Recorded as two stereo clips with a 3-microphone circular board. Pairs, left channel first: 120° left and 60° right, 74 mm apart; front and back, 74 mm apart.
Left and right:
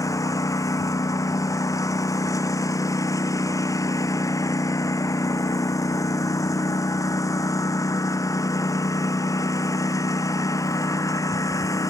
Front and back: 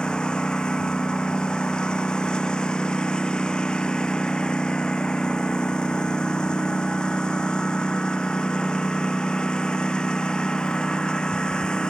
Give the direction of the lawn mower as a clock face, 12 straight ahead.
9 o'clock.